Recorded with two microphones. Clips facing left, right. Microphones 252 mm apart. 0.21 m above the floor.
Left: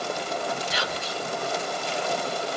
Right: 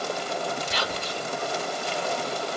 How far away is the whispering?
About 1.1 m.